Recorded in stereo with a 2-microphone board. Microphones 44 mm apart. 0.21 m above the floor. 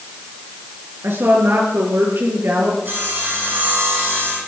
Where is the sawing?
55° right (ahead or behind), 8 m.